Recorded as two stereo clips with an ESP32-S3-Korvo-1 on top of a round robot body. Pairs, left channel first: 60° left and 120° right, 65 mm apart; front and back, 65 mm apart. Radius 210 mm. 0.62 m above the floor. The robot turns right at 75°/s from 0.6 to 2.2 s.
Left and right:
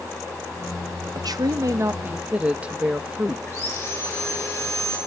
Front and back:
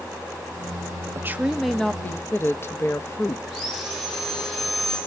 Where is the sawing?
90° left, 9 m.